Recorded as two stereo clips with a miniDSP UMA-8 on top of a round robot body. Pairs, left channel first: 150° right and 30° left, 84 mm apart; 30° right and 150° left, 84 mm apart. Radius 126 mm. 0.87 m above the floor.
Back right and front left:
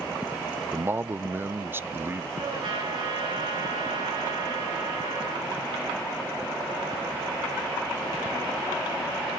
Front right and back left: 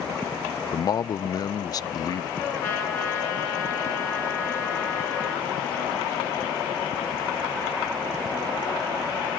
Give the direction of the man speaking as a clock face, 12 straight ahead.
1 o'clock.